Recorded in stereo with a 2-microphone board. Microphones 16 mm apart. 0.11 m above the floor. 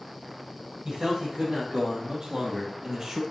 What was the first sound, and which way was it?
A man speaking, 45° right (ahead or behind).